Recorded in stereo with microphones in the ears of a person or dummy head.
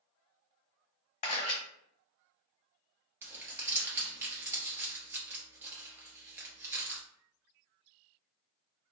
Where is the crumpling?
15° right (ahead or behind), 0.7 m.